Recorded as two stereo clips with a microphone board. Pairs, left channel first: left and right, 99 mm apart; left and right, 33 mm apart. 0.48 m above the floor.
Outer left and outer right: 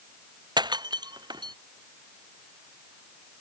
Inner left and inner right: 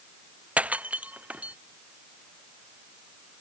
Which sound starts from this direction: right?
Breaking glass, at 0.6 s.